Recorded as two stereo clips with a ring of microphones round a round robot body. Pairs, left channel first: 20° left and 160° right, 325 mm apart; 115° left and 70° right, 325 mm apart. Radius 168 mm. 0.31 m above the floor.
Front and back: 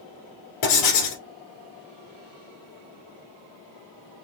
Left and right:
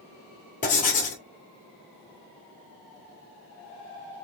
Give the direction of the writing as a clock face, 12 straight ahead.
11 o'clock.